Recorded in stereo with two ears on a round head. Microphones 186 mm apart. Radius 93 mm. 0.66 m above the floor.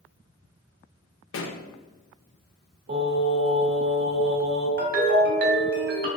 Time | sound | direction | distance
1.3 | a pop | 70° left (ahead or behind) | 0.5 m
2.9 | singing | 50° right (ahead or behind) | 1.3 m
4.8 | a ringtone | 55° right (ahead or behind) | 1.0 m